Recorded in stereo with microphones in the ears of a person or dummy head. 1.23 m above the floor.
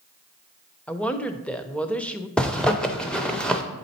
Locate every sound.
0.9 s a woman speaking: 5° left (ahead or behind), 0.5 m
2.4 s a zipper: centre (ahead or behind), 0.6 m